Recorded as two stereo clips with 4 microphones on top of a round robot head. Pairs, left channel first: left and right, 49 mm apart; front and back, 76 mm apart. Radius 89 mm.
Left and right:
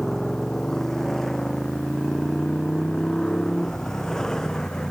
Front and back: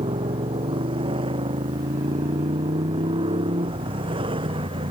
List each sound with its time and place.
0.0 s a motorcycle: 175° left; by 4.9 s 170° left